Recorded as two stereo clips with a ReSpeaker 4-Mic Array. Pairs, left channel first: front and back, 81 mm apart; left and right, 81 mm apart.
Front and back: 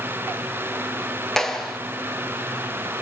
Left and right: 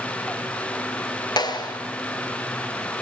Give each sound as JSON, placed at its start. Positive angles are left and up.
{"t": 1.4, "sound": "a clap", "azimuth_deg": 85, "distance_m": 2.5}